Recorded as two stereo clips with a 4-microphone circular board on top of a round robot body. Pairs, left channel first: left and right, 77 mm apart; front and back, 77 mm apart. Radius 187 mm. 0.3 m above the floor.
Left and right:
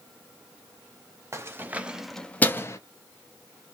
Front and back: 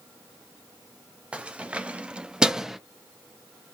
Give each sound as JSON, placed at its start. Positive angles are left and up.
{"t": 1.3, "sound": "keys jangling", "azimuth_deg": -115, "distance_m": 0.8}